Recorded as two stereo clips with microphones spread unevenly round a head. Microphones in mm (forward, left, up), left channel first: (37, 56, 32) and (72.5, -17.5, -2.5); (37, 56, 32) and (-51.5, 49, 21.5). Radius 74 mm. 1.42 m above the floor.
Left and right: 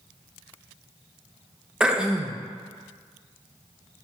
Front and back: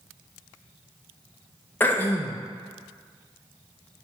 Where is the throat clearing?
45° left, 0.6 m.